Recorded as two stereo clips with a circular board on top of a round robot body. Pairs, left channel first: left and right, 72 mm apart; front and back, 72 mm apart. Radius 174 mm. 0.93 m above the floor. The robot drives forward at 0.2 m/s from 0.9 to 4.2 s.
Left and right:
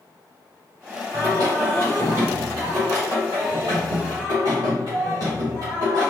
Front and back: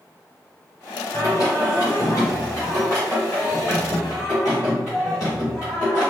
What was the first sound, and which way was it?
Singing, 40° right.